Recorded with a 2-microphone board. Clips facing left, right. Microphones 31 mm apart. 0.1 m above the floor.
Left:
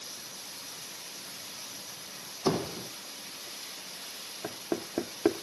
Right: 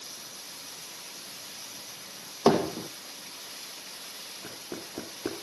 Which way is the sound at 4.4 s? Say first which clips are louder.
Left 8 dB; 40° left (ahead or behind).